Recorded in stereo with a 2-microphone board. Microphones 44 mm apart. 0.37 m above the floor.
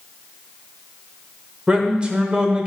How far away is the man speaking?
About 1.0 m.